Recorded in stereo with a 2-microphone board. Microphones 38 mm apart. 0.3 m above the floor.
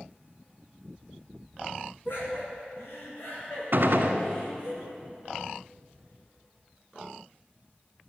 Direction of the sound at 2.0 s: 70° left (ahead or behind).